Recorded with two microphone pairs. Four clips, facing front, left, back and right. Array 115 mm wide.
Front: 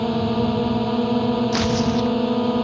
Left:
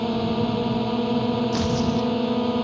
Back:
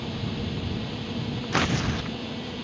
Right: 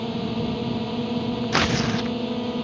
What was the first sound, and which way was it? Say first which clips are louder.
A drone: left 4 dB, front 12 dB; 30° left.